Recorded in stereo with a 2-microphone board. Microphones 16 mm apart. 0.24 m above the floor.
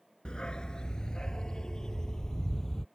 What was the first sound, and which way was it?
A dog barking, 65° left (ahead or behind).